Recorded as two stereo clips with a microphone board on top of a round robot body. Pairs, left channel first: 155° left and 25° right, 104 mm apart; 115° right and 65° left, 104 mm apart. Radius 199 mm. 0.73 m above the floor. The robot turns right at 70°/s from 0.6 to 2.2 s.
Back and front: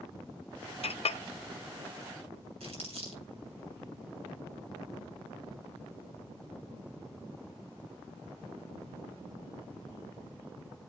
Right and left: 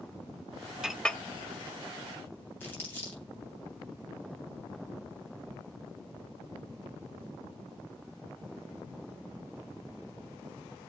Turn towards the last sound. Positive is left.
turn(degrees=-40)